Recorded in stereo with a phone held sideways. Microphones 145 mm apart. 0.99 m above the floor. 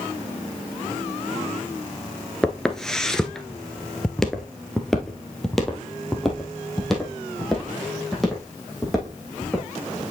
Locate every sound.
2.4 s footsteps: 5° left (ahead or behind), 1.0 m; by 9.6 s centre (ahead or behind), 4 m